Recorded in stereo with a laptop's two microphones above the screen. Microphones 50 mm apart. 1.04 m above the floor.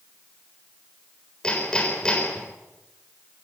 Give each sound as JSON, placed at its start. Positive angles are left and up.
{"t": 1.4, "sound": "hammering", "side_deg": 15, "distance_m": 4.0}